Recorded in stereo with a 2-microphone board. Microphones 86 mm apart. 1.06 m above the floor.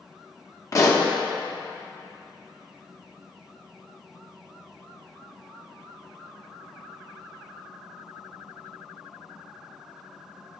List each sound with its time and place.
0.7 s a pop: 40° left (ahead or behind), 0.8 m